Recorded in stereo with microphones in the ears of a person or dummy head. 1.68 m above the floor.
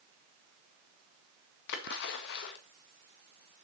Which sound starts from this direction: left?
A splash, at 1.7 s.